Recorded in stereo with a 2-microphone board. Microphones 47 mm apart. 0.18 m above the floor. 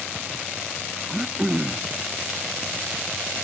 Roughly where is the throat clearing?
Right.